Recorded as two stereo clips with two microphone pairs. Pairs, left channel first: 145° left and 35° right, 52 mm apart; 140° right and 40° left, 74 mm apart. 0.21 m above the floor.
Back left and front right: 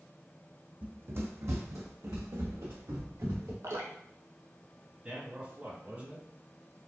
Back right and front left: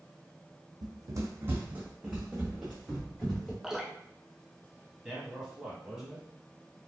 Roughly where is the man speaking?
Ahead right.